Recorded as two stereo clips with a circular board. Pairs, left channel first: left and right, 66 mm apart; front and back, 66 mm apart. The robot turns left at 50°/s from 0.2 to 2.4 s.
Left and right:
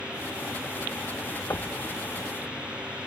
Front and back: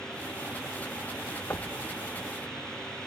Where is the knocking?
50° left; by 1.7 s 40° left.